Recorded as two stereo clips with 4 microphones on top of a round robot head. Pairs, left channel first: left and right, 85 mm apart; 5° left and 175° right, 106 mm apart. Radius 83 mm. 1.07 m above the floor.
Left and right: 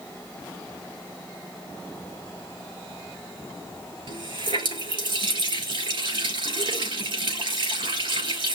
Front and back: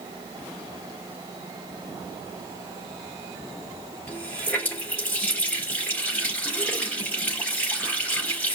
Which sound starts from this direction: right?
A running tap, at 4.1 s.